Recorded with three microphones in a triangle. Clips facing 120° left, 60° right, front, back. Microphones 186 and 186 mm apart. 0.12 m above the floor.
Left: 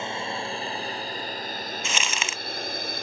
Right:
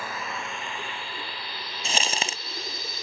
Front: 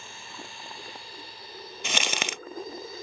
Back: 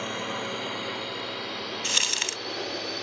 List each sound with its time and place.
0.0 s a drone: 175° right; by 3.0 s 155° left
1.8 s crumpling: 5° right